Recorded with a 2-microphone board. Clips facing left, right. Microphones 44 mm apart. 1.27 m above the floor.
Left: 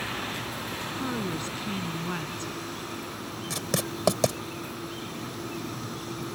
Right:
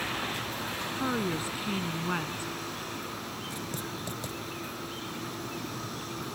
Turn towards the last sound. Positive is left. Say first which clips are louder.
# left 5 dB
turn(degrees=80)